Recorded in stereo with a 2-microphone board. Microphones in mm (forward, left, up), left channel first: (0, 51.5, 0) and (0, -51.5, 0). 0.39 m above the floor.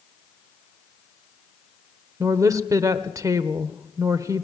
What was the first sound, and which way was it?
A woman speaking, 35° right (ahead or behind).